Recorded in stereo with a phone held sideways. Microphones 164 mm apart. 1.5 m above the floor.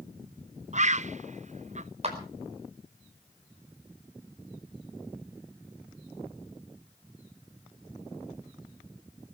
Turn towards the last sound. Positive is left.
turn(degrees=-40)  # may be behind; listen again after turning